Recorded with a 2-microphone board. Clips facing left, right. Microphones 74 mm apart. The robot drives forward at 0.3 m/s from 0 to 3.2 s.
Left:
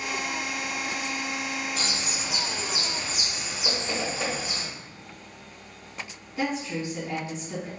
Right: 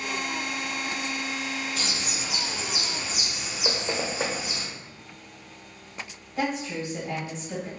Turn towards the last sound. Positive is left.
turn(degrees=-40)  # may be behind; listen again after turning